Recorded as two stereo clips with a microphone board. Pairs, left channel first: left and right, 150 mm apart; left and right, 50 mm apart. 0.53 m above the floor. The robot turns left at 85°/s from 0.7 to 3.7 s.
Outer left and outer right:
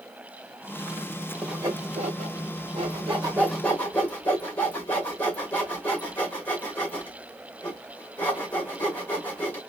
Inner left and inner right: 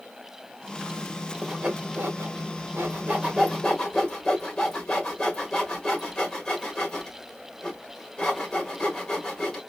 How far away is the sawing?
About 1.7 m.